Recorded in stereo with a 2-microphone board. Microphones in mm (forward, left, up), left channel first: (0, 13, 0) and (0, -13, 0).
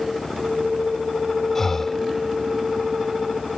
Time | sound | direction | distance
1.6 | breathing | 15° left (ahead or behind) | ?